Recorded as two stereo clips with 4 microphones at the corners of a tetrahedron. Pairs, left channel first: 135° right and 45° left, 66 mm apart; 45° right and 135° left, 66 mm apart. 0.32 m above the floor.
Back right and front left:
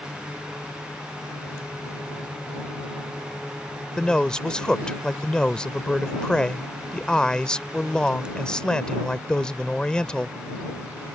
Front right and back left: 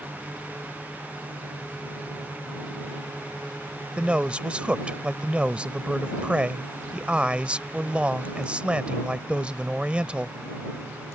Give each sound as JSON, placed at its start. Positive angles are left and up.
{"t": 4.0, "sound": "a man speaking", "azimuth_deg": 170}